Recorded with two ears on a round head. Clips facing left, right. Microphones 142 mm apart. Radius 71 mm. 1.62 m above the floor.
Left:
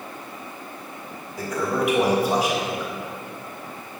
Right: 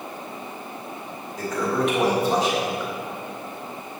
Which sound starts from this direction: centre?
A toilet flushing, at 1.4 s.